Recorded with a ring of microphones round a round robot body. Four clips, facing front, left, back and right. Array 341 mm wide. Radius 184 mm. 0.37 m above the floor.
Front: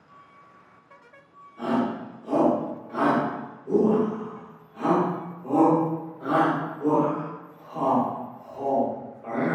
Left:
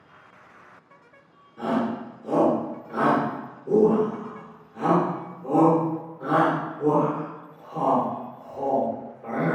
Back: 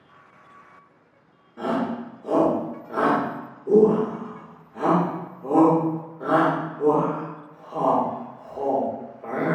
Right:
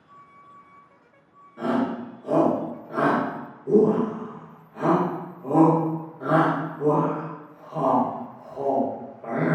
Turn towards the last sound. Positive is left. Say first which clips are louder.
# right 1 dB, even
turn(degrees=-155)